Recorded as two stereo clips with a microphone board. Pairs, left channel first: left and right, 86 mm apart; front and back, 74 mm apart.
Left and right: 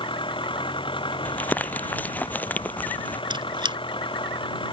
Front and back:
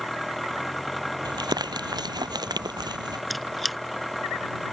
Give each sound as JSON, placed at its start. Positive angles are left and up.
{"t": 0.0, "sound": "an engine running", "azimuth_deg": 90}
{"t": 1.2, "sound": "crumpling", "azimuth_deg": 160}
{"t": 3.3, "sound": "a squeak", "azimuth_deg": -90}